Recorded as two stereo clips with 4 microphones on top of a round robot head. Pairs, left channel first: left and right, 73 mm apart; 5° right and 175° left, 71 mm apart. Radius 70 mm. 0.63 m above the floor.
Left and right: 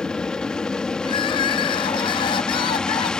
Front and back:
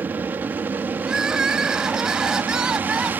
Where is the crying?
90° left.